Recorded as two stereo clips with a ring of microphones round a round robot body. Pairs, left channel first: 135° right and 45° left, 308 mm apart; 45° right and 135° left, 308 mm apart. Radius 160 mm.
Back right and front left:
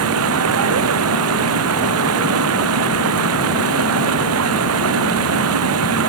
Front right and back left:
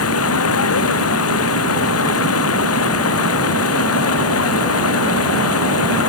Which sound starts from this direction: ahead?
Running water, at 0.0 s.